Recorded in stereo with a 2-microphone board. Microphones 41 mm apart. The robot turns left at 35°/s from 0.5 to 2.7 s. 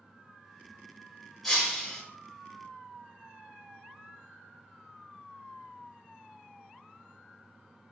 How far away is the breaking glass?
About 1.0 m.